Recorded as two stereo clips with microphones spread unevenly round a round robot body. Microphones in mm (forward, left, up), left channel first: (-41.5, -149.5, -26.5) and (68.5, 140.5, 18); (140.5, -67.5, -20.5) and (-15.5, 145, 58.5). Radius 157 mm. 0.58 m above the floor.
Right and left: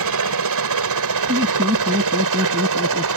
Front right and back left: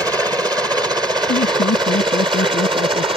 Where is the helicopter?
40° left; by 3.2 s 50° left.